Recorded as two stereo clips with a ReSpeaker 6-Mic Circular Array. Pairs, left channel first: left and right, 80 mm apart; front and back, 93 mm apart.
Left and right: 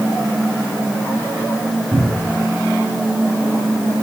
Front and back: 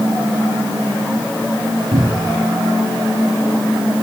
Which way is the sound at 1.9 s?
165° right.